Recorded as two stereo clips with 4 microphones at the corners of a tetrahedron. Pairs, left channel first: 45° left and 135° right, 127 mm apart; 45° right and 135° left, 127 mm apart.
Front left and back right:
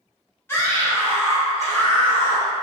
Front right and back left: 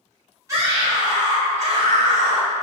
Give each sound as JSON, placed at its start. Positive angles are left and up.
{"t": 0.5, "sound": "a scream", "azimuth_deg": 100, "distance_m": 0.7}